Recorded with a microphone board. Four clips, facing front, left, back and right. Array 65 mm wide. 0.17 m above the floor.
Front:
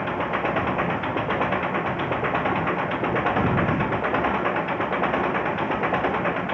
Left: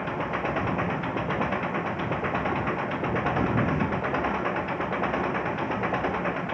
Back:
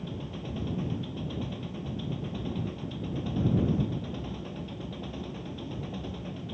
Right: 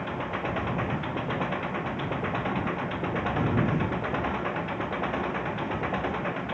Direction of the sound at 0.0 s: 10° left.